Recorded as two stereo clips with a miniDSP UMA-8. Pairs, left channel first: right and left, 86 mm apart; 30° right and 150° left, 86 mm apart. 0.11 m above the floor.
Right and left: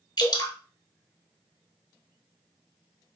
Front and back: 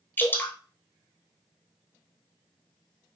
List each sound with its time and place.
0.2 s dripping: 90° right, 1.1 m